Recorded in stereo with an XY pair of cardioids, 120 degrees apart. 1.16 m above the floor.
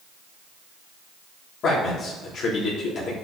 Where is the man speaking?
60° left, 3.5 m.